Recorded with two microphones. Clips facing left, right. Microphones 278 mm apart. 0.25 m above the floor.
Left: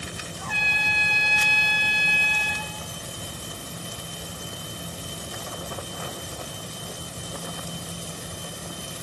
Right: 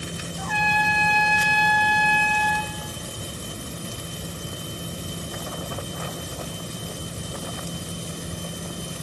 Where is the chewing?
I don't hear chewing.